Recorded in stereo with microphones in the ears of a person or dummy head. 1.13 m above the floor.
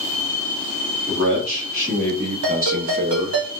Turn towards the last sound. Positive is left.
turn(degrees=-65)  # may be behind; listen again after turning